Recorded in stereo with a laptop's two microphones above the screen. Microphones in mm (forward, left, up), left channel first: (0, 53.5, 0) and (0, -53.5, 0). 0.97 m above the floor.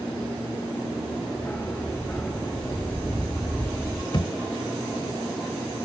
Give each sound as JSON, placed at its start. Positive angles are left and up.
{"t": 1.4, "sound": "a dog barking", "side_deg": 15}
{"t": 4.1, "sound": "a thud", "side_deg": 55}